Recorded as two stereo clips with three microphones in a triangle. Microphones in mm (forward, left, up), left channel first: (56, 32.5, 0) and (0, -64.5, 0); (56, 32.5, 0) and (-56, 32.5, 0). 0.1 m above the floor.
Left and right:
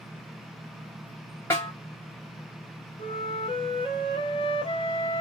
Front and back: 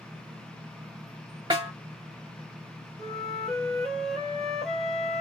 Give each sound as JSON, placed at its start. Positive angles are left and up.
{"t": 1.5, "sound": "a snare drum", "azimuth_deg": 125, "distance_m": 1.7}
{"t": 3.0, "sound": "a flute", "azimuth_deg": 85, "distance_m": 1.1}